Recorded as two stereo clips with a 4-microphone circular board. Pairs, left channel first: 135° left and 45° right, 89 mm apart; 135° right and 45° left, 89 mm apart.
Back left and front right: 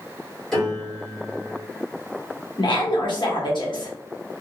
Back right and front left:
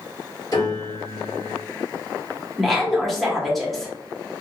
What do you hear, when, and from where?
0.5 s a piano: 145° right, 1.8 m
2.6 s a woman speaking: 135° left, 1.0 m